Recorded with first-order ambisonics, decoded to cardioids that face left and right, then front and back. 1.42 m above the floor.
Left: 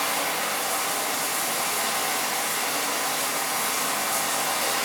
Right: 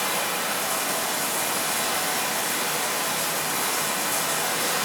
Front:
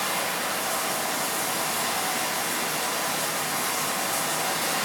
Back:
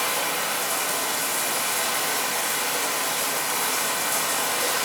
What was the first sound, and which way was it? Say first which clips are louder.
Running water: even, back 2 dB; 140° right.